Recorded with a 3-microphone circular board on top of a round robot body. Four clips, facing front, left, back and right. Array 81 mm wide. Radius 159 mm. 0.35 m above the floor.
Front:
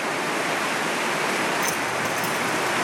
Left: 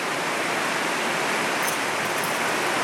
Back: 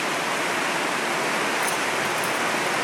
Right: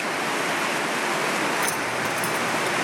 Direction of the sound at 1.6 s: 55° right.